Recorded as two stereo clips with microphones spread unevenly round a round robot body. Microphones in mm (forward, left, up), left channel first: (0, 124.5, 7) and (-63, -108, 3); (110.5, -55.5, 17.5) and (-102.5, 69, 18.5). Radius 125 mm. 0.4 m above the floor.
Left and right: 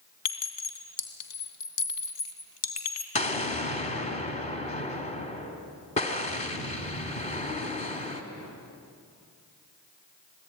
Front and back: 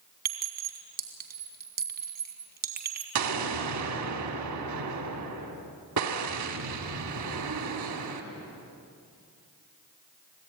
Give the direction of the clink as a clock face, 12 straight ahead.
9 o'clock.